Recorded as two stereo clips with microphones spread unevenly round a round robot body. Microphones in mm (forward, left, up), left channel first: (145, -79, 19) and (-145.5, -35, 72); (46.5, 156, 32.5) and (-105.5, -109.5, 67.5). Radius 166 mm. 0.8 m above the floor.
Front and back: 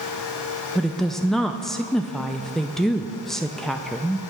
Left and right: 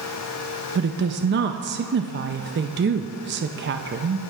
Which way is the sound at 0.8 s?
80° right.